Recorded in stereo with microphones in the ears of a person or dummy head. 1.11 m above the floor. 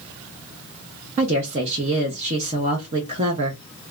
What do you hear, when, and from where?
1.2 s a woman speaking: 45° right (ahead or behind), 0.9 m